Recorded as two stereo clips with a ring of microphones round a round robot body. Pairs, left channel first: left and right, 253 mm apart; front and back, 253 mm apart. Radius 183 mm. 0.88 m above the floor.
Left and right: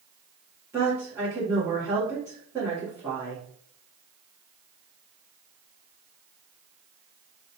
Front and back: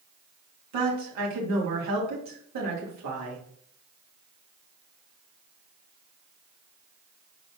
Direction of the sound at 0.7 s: 170° right.